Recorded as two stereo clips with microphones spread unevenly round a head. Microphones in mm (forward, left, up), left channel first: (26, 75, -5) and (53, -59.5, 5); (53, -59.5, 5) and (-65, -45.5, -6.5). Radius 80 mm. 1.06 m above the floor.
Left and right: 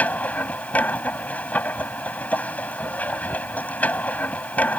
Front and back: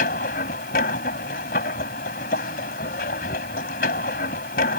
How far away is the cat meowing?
No cat meowing in this recording.